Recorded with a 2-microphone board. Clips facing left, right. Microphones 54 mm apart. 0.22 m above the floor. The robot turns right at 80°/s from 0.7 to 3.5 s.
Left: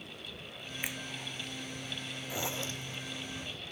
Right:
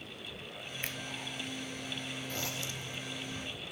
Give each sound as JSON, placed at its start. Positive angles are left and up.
{"t": 0.8, "sound": "a finger snap", "side_deg": 15}
{"t": 2.3, "sound": "a zipper", "azimuth_deg": 10}